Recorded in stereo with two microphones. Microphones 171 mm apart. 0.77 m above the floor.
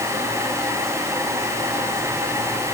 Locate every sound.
Only background noise.